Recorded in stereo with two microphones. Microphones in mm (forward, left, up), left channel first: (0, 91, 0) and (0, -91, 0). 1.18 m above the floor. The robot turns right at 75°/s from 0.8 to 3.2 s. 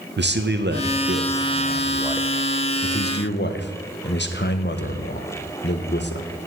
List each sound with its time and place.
0.2 s a man speaking: 105° right, 0.6 m; by 6.3 s 75° left, 0.6 m